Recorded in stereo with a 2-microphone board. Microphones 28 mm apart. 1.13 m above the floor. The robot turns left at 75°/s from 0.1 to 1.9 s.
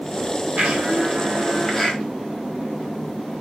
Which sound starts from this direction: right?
A blender, at 0.6 s.